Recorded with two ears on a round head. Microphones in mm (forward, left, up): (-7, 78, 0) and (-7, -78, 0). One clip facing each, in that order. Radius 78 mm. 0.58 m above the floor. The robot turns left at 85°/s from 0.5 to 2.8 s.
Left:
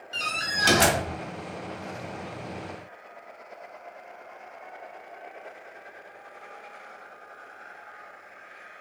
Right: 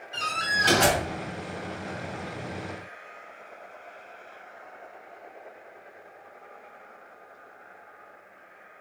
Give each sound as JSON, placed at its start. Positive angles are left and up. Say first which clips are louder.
{"t": 0.1, "sound": "a door slam", "louder": "right 2 dB", "azimuth_deg": 140, "distance_m": 3.0}